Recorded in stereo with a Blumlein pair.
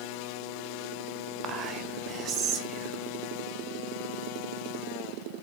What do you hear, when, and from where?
1.4 s whispering: 30° right, 0.6 m